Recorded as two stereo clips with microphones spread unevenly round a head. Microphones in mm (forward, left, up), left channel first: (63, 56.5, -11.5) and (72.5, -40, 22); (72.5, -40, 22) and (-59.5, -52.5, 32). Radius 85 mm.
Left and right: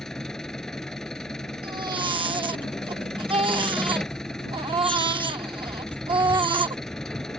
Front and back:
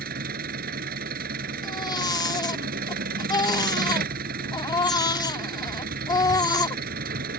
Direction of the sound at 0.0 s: 170° right.